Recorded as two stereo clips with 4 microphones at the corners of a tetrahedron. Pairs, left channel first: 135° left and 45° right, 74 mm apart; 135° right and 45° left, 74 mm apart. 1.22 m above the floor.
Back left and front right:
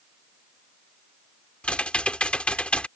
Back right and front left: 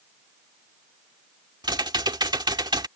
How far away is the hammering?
No hammering in this recording.